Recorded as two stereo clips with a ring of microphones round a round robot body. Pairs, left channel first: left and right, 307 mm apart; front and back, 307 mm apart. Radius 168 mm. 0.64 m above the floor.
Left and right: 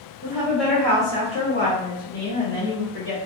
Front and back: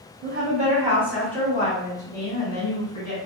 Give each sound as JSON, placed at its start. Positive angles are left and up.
{"t": 0.2, "sound": "a woman speaking", "azimuth_deg": -165, "distance_m": 1.0}